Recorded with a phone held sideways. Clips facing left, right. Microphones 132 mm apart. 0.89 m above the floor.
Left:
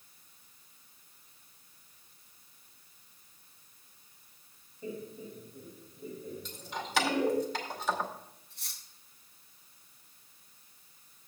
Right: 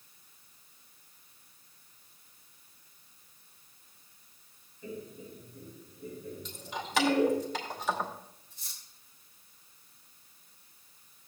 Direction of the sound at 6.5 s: Centre (ahead or behind).